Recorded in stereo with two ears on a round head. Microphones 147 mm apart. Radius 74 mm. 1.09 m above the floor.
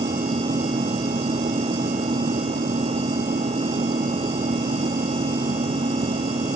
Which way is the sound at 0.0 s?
30° right (ahead or behind).